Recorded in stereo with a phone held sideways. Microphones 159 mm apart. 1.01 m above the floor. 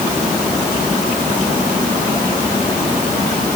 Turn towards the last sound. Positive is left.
No sound to turn to.